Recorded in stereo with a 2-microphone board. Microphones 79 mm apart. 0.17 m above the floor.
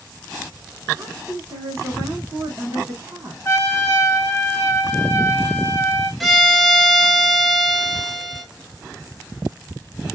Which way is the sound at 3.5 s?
30° left (ahead or behind).